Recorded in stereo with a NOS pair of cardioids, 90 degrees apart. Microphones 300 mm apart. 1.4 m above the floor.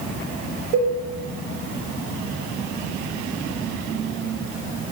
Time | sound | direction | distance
0.7 | a cowbell | 65° right | 0.8 m